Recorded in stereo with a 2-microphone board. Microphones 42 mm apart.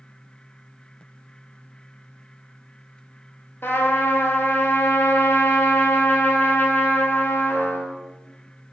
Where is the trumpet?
65° left (ahead or behind), 0.8 m.